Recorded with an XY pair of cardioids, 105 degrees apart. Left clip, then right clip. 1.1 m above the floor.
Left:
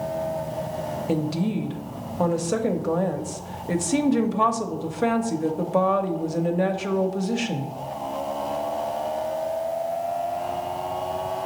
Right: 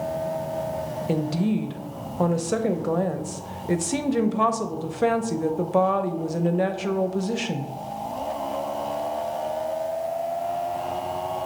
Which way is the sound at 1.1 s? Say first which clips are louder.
Right 1 dB; 10° right.